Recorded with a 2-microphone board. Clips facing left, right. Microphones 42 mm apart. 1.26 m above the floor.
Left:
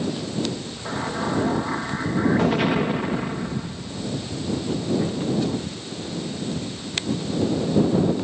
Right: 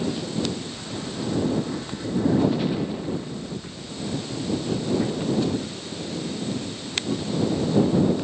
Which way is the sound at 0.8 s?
75° left (ahead or behind).